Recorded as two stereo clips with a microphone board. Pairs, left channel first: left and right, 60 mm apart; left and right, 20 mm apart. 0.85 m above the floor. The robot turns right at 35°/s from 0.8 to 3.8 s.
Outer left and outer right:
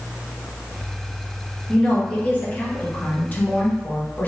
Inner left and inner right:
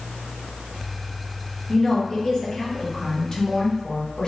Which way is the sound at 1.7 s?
15° left.